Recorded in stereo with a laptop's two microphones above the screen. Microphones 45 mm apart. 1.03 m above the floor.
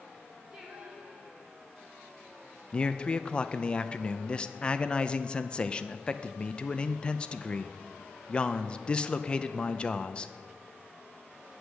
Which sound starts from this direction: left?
A man speaking, at 2.7 s.